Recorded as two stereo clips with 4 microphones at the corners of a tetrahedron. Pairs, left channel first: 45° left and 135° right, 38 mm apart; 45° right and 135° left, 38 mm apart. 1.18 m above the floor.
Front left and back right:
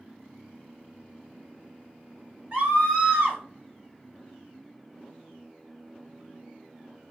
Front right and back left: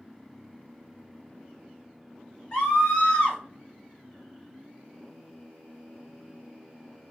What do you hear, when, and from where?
2.5 s a scream: 85° right, 3 m